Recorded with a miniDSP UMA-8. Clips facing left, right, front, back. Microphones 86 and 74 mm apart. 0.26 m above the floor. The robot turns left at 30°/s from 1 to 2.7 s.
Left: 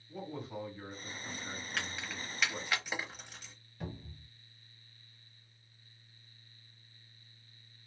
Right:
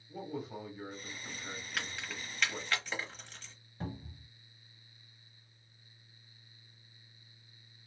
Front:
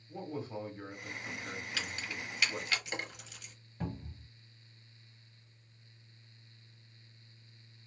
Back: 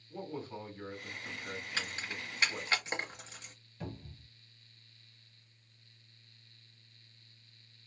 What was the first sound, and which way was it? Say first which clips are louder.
A man speaking: right 1 dB, front 1 dB; 15° right.